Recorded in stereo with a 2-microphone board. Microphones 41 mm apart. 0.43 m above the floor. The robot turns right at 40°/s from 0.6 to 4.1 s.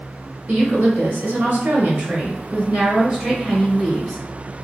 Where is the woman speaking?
115° right, 1.4 m; by 4.5 s 25° left, 1.4 m.